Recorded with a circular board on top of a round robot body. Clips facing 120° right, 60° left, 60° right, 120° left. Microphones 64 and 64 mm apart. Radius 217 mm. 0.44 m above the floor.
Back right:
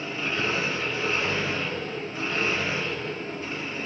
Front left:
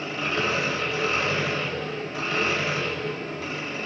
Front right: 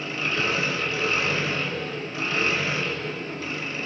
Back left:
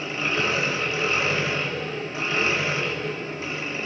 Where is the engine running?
55° left, 1.0 m.